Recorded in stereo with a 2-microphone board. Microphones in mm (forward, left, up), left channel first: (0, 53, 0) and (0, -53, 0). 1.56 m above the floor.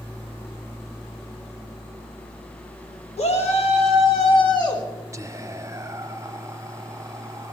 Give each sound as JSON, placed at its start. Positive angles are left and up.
{"t": 3.2, "sound": "a shout", "side_deg": 75, "distance_m": 1.7}
{"t": 5.1, "sound": "whispering", "side_deg": -30, "distance_m": 0.7}